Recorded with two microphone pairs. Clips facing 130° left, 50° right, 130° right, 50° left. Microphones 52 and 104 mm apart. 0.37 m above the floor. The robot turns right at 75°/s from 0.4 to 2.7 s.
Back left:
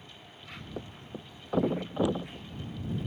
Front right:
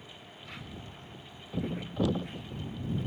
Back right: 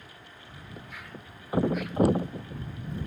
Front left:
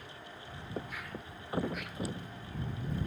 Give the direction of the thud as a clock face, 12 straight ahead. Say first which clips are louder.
Back left 5 dB, front left 4 dB; 9 o'clock.